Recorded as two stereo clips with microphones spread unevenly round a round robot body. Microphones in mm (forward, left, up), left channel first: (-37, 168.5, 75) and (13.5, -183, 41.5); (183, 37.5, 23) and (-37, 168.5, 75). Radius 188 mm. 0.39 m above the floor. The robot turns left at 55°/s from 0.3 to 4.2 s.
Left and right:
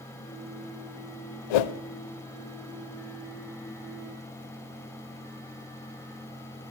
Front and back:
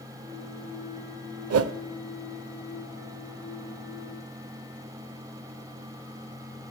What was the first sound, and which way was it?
A whoosh, 115° left.